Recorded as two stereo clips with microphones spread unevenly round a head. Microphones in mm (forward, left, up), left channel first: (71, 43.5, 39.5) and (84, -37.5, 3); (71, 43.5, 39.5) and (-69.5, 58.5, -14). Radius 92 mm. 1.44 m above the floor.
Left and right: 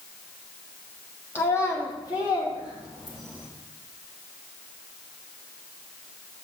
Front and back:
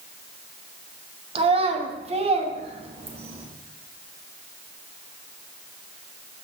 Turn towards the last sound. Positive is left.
turn(degrees=125)